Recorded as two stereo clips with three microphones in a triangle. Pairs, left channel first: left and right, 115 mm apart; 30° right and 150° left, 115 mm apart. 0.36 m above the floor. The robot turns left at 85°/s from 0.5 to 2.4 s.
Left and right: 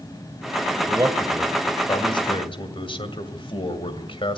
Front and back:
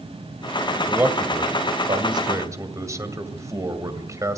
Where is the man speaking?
135° right, 2 m; by 4.4 s 95° left, 2 m.